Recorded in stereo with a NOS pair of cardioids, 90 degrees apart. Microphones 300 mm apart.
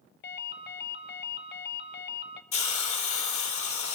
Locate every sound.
0.2 s a ringtone: 35° left, 0.6 m
2.5 s a hiss: 70° left, 2 m